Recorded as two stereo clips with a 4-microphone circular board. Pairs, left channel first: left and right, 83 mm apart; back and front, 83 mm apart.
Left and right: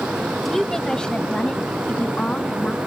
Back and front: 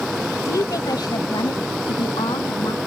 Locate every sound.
0.5 s a woman speaking: 175° left; by 2.8 s 165° left